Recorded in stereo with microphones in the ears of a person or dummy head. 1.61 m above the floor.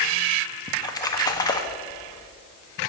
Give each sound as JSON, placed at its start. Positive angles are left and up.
{"t": 0.7, "sound": "a splash", "side_deg": 20, "distance_m": 0.8}